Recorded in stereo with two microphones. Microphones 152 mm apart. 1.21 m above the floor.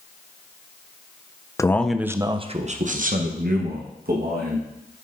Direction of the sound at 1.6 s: 20° left (ahead or behind).